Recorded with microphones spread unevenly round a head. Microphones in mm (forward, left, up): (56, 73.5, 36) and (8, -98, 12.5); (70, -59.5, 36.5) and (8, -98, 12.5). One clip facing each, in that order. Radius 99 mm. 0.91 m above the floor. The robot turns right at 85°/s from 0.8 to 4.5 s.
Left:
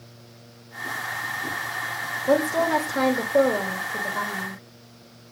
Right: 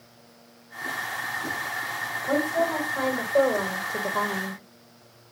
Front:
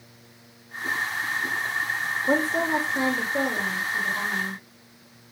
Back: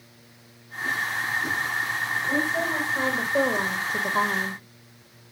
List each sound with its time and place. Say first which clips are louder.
2.3 s a woman speaking: left 4 dB, front 4 dB; 40° left, 1.8 m; by 4.6 s 130° right, 1.8 m